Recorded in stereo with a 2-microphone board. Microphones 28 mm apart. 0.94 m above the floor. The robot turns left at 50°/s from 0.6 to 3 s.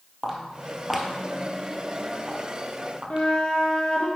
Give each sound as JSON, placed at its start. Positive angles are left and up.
{"t": 0.2, "sound": "footsteps", "side_deg": -10, "distance_m": 1.5}
{"t": 3.1, "sound": "a flute", "side_deg": 50, "distance_m": 1.2}